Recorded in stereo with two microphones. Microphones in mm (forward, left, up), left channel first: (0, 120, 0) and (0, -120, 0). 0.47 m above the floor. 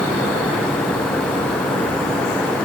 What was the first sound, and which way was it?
Only background noise.